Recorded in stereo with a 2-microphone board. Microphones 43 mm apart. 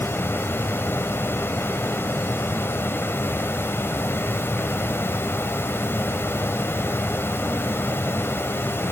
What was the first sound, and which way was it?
Running water, 70° left (ahead or behind).